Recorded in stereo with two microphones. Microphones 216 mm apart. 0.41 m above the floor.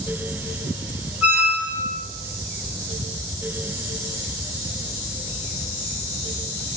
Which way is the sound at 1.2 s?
5° right (ahead or behind).